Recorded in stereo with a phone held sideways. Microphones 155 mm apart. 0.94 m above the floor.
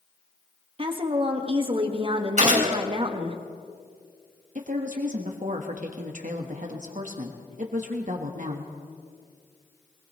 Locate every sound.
0.8 s a woman speaking: 35° right (ahead or behind), 1.5 m
2.4 s a gunshot: 50° right (ahead or behind), 2.5 m
4.5 s a woman speaking: 55° right (ahead or behind), 1.2 m